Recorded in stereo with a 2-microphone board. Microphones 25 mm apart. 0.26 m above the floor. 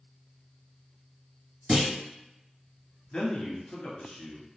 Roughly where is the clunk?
Right.